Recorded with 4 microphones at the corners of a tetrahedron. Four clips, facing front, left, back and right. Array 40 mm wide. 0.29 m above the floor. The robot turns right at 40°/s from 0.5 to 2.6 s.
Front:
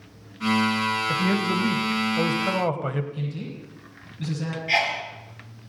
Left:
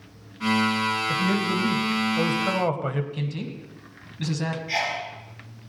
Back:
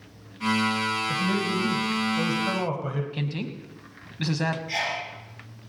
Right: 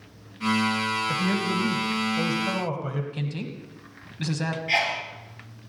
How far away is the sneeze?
About 5 m.